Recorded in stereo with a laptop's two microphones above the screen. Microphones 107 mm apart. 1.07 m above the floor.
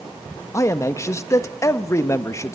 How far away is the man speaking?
About 1.3 m.